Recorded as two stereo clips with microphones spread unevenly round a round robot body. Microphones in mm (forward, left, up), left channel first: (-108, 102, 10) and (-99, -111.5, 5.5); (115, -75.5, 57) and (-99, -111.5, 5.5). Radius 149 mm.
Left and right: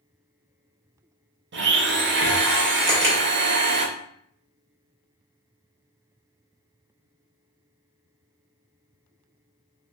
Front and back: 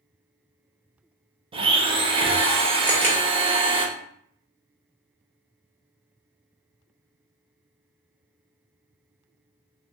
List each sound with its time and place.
1.5 s a blender: 115° right, 0.5 m
2.9 s a camera shutter: 115° right, 1.1 m